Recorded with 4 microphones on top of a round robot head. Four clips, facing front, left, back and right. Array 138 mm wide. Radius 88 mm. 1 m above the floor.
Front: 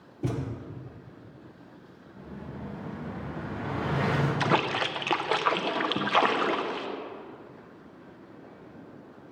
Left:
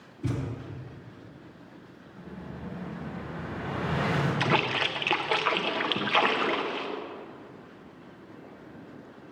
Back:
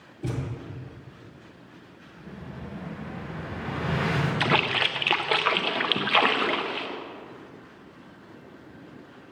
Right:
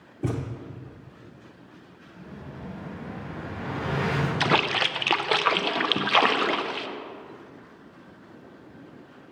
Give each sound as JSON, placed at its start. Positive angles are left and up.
{"t": 0.2, "sound": "a thud", "azimuth_deg": -70, "distance_m": 0.9}
{"t": 2.2, "sound": "an explosion", "azimuth_deg": -50, "distance_m": 4.0}
{"t": 4.4, "sound": "a splash", "azimuth_deg": -80, "distance_m": 0.6}